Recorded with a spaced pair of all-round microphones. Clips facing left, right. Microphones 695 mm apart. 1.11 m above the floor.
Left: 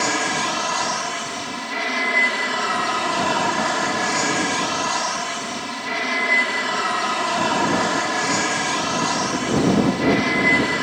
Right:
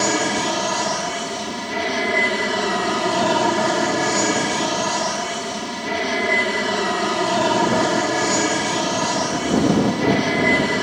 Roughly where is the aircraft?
Right.